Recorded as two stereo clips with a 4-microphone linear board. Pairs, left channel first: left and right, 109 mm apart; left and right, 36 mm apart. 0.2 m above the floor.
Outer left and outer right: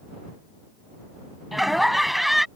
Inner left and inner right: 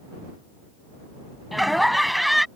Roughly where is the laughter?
Centre.